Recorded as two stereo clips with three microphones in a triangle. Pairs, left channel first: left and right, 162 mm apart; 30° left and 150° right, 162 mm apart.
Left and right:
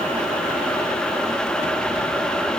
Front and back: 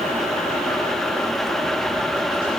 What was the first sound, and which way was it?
Only background noise.